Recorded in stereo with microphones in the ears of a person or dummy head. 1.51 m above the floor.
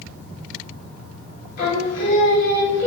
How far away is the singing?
About 5 m.